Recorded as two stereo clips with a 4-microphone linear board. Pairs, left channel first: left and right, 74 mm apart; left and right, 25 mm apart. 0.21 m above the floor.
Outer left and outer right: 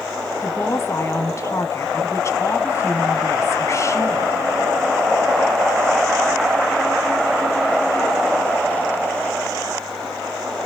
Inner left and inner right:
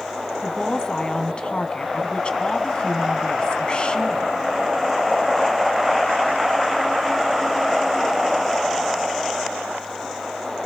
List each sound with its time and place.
0.4 s a woman speaking: 45° left (ahead or behind), 1.5 m